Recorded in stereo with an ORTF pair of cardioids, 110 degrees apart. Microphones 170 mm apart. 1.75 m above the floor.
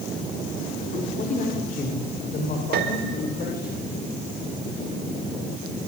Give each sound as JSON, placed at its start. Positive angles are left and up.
{"t": 0.9, "sound": "a man speaking", "azimuth_deg": 40, "distance_m": 5.5}
{"t": 2.7, "sound": "a piano", "azimuth_deg": -70, "distance_m": 4.5}